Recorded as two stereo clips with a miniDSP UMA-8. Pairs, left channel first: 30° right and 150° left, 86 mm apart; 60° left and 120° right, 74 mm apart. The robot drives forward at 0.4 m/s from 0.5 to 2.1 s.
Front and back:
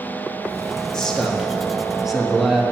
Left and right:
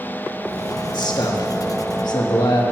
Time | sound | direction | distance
0.9 | a man speaking | 50° left | 1.9 m